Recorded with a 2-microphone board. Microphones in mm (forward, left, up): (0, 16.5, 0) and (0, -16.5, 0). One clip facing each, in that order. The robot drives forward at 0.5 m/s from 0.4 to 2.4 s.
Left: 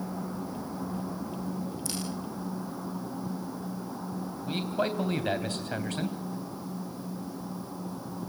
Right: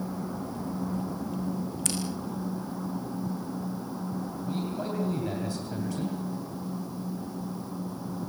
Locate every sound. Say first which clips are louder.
1.9 s scissors: right 3 dB; 70° right (ahead or behind), 6 m
4.5 s a man speaking: left 4 dB; 60° left (ahead or behind), 3 m